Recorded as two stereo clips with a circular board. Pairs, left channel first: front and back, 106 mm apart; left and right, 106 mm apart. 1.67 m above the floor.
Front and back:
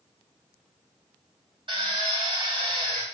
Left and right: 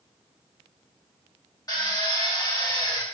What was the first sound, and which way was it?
A drill, 145° left.